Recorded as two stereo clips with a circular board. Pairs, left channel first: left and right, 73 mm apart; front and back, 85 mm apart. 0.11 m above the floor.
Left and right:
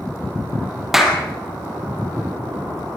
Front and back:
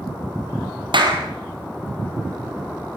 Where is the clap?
175° right, 3 m.